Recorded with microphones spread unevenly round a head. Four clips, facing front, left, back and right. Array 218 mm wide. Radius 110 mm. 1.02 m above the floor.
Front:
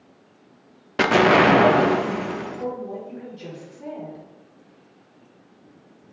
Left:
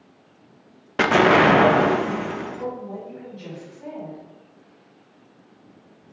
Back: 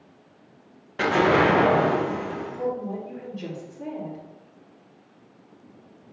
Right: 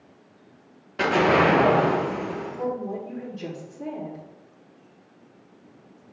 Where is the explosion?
45° left, 0.8 m.